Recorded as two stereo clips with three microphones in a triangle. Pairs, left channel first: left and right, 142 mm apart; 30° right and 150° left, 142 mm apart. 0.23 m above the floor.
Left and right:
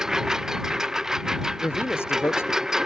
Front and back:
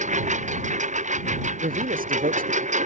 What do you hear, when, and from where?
0.0 s a lawn mower: 175° right
1.6 s a man speaking: 165° left